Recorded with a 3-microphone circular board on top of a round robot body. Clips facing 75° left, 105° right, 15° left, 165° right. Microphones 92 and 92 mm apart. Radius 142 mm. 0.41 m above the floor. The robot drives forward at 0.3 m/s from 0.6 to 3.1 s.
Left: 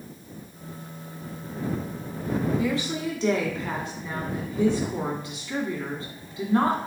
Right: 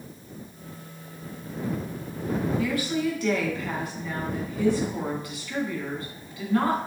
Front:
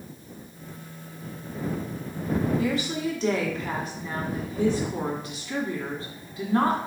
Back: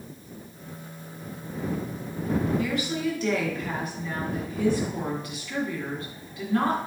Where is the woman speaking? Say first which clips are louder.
Right 1 dB, front 1 dB; 35° left, 1.4 m; by 6.8 s 40° left, 1.3 m.